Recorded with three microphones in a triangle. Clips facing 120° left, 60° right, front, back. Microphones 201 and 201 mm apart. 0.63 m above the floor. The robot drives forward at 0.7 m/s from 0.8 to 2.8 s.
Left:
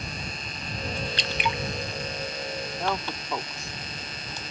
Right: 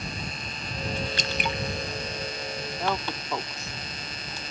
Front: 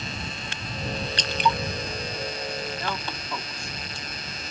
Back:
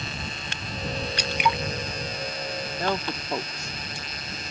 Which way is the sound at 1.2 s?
100° right.